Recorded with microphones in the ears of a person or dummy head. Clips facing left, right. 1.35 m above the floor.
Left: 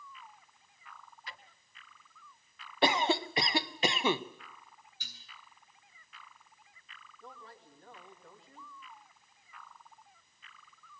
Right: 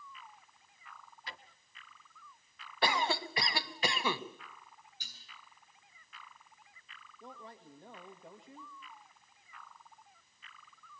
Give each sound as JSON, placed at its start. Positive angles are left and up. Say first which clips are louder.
{"t": 1.3, "sound": "a drawer", "louder": "right 1 dB", "side_deg": -30, "distance_m": 0.9}
{"t": 2.8, "sound": "a cough", "louder": "left 4 dB", "side_deg": 25, "distance_m": 1.0}
{"t": 5.0, "sound": "dishes clattering", "louder": "left 3 dB", "side_deg": 55, "distance_m": 8.5}
{"t": 7.2, "sound": "a man speaking", "louder": "right 2 dB", "side_deg": -20, "distance_m": 2.5}